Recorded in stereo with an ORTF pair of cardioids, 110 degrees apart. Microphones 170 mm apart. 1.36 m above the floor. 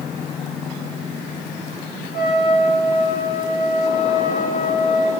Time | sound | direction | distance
2.1 | a trumpet | 60° left | 9.5 m